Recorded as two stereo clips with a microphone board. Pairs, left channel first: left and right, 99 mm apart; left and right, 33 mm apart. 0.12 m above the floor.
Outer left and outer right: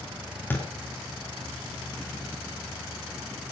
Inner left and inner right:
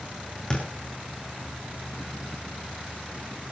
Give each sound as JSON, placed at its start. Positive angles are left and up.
{"t": 0.5, "sound": "a thud", "side_deg": 20, "distance_m": 5.0}